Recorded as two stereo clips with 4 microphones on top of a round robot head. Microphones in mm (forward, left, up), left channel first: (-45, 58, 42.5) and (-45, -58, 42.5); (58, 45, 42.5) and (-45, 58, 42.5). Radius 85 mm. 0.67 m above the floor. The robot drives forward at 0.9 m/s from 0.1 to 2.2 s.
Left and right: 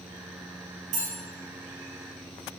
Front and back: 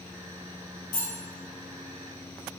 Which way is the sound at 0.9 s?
65° right.